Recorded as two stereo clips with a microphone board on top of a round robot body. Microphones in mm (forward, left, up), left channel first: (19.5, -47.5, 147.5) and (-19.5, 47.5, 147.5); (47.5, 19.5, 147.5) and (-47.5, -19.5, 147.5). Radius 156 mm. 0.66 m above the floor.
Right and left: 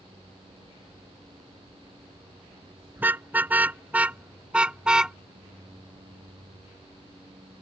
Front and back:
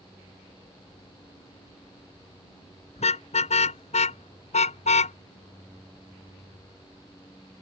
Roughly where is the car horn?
Ahead left.